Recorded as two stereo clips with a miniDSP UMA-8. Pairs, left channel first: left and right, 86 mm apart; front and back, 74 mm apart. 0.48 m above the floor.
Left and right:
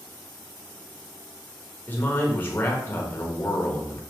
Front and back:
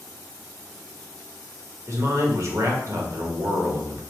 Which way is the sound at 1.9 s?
150° left.